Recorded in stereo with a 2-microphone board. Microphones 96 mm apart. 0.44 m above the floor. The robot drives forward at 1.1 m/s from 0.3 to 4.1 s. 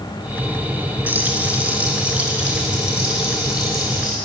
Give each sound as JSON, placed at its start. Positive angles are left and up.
{"t": 1.1, "sound": "frying", "side_deg": -20, "distance_m": 1.7}